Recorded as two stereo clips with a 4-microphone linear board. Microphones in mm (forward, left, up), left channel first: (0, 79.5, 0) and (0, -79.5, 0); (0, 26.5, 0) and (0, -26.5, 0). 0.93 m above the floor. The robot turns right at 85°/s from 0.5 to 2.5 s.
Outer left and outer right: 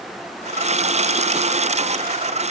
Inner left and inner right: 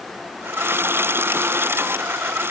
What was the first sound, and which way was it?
Only background noise.